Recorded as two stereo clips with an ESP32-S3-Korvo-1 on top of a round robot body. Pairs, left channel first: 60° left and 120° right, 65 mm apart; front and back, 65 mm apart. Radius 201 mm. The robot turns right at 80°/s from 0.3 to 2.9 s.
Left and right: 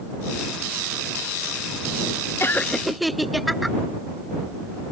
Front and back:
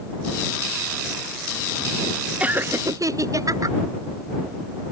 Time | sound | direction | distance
2.4 | laughter | 110° left | ?